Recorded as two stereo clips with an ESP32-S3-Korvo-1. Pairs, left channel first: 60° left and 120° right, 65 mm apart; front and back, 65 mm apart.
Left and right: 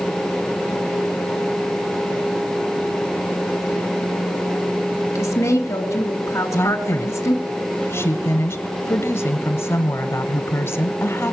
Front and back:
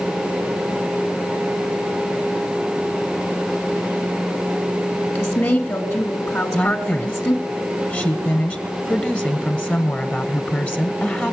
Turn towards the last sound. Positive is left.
turn(degrees=50)